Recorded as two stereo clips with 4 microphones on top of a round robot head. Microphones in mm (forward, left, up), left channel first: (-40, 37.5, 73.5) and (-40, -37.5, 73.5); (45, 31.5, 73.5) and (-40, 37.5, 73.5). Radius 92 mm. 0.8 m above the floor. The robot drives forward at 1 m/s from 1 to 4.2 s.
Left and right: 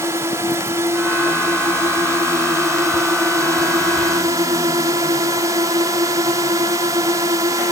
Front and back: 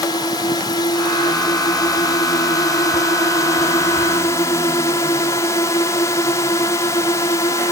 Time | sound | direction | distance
0.0 | a drone | 40° right | ?